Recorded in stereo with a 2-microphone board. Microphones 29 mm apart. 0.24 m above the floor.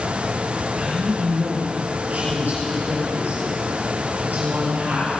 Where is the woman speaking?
45° right (ahead or behind), 6 m; by 5.1 s 75° right (ahead or behind), 7 m.